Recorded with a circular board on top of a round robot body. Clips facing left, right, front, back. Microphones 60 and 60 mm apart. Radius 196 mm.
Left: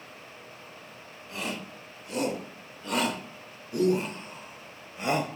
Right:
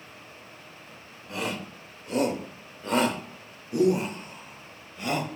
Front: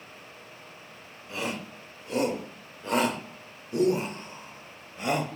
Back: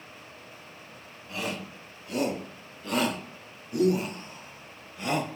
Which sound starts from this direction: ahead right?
A shout, at 1.3 s.